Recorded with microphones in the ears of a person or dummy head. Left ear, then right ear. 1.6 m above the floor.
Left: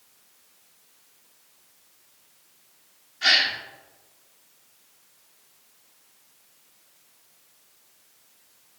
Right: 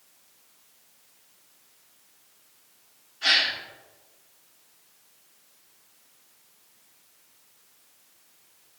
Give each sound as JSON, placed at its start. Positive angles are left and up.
{"t": 3.2, "sound": "a gasp", "side_deg": 25, "distance_m": 1.9}